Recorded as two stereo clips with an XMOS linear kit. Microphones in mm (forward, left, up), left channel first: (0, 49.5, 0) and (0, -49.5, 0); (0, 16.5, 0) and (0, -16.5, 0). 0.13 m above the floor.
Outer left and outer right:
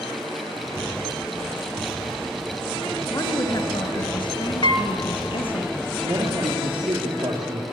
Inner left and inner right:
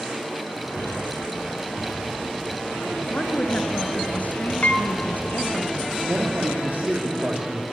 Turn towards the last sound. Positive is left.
turn(degrees=-60)  # may be behind; listen again after turning